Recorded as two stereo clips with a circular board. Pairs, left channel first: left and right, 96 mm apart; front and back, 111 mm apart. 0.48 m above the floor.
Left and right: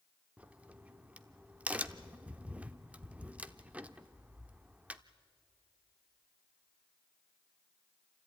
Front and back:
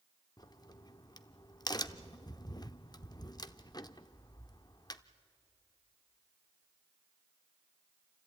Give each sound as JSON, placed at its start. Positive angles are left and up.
{"t": 0.4, "sound": "a crack", "azimuth_deg": -20, "distance_m": 0.6}